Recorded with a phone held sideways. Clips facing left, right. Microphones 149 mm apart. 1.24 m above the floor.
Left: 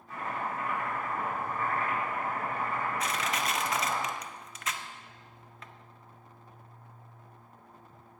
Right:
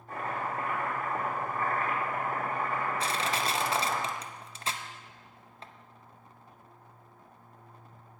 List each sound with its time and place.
0.1 s chopping: 45° right (ahead or behind), 4.5 m
3.0 s crushing: 30° right (ahead or behind), 0.5 m